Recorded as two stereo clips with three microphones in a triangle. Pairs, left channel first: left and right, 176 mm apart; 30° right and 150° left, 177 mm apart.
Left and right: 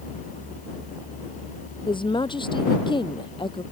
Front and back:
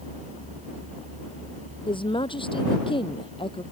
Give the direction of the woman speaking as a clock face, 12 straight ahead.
11 o'clock.